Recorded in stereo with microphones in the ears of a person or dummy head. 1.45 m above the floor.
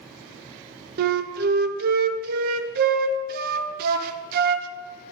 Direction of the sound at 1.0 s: 50° right (ahead or behind).